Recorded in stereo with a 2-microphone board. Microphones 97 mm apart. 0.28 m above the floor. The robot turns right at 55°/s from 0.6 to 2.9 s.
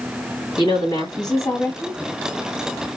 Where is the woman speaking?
95° left, 1.5 m; by 2.0 s 170° left, 1.5 m.